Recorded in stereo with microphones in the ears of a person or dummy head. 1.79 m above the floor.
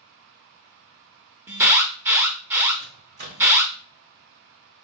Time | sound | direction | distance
1.5 | an alarm | 10° right (ahead or behind) | 0.8 m
2.8 | a microwave | 45° right (ahead or behind) | 1.0 m